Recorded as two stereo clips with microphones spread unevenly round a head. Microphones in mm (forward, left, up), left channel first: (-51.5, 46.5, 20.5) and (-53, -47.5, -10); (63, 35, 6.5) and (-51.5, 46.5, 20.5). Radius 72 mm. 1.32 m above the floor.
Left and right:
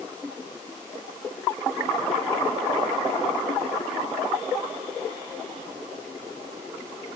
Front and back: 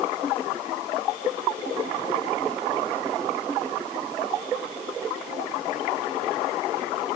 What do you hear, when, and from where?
Only background noise.